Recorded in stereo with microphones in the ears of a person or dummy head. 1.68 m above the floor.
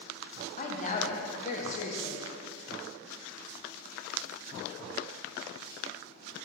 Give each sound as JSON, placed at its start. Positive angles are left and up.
{"t": 0.6, "sound": "a woman speaking", "side_deg": 40, "distance_m": 0.8}